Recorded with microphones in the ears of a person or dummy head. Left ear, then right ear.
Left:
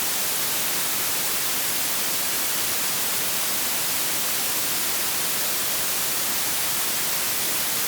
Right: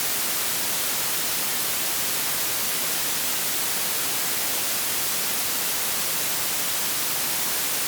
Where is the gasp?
I don't hear a gasp.